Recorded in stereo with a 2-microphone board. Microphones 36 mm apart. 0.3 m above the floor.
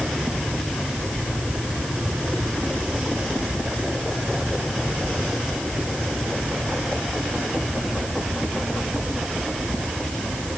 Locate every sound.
Only background noise.